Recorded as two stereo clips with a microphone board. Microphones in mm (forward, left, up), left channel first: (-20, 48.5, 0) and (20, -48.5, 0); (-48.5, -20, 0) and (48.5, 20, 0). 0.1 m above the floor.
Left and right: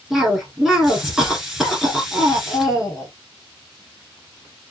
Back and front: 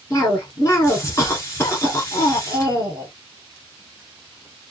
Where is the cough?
150° right, 1.5 m.